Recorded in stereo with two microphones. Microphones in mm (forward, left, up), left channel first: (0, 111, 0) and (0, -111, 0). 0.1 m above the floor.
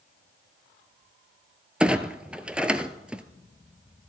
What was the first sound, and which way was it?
A clunk, 5° right (ahead or behind).